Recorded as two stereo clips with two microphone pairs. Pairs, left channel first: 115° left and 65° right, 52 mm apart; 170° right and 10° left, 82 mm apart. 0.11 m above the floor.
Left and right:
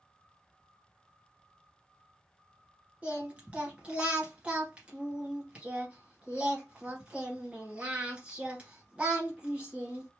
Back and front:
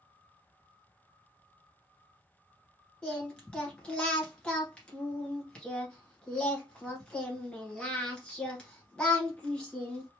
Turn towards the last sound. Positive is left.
turn(degrees=-105)